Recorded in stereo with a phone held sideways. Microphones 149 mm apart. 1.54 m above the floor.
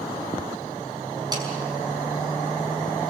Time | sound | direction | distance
1.3 | a snare drum | 25° right (ahead or behind) | 5.5 m